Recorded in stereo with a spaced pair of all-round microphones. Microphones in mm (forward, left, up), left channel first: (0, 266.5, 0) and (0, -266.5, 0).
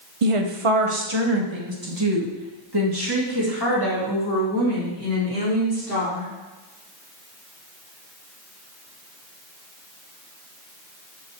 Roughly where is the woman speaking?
Right.